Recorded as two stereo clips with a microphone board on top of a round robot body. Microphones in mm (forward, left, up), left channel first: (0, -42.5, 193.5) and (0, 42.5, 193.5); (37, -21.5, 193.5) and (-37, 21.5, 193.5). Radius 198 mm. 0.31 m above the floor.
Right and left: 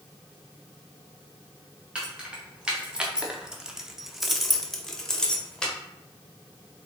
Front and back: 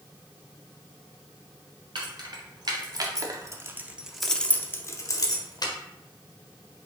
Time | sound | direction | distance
1.9 | keys jangling | 170° left | 1.4 m